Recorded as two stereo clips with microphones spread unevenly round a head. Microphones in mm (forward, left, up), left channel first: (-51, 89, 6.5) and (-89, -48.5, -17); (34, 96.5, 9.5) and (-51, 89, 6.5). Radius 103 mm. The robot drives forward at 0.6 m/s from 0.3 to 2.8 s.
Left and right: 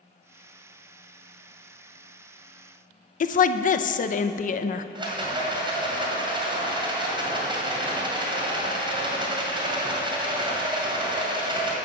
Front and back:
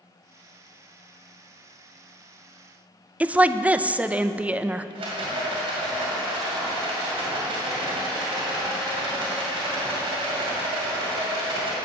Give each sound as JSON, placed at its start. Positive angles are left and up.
{"t": 3.2, "sound": "a woman speaking", "azimuth_deg": 110, "distance_m": 0.5}
{"t": 5.0, "sound": "a rattle", "azimuth_deg": -165, "distance_m": 2.0}